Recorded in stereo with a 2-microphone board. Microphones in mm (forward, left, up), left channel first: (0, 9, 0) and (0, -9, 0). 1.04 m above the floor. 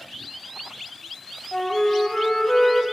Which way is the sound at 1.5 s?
35° left (ahead or behind).